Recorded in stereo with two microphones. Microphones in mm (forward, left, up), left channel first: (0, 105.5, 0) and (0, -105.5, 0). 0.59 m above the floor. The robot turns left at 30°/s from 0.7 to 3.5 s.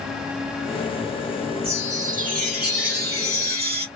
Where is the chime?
35° right, 1.6 m; by 3.9 s 95° right, 1.6 m.